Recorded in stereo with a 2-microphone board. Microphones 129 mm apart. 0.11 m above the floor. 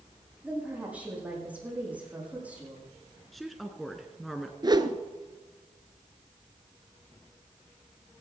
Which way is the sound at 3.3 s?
Centre (ahead or behind).